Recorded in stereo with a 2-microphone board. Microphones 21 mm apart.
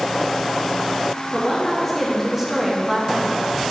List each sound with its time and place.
1.3 s a woman speaking: 15° left (ahead or behind), 1.4 m; by 3.5 s 45° right (ahead or behind), 1.6 m